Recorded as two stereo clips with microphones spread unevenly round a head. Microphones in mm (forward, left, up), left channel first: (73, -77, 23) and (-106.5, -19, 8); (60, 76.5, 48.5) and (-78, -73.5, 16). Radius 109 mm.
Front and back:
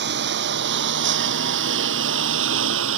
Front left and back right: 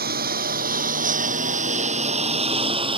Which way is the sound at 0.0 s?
175° right.